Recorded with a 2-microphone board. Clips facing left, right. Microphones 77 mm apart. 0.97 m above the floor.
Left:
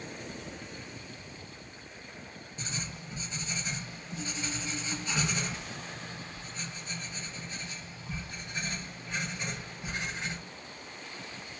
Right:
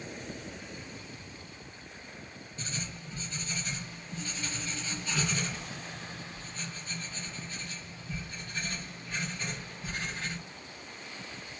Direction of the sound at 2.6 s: 20° left (ahead or behind).